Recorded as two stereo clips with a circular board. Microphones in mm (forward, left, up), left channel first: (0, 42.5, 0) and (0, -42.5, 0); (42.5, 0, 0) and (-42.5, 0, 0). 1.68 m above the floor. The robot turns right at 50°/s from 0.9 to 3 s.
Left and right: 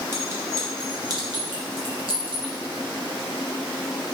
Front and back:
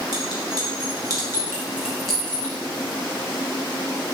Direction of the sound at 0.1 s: 145° right.